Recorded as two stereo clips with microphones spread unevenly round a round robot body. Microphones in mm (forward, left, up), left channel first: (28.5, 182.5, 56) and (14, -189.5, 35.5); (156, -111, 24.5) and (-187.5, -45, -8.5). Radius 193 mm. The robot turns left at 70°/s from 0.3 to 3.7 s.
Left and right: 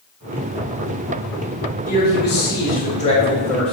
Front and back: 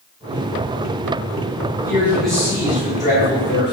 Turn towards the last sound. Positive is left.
turn(degrees=-10)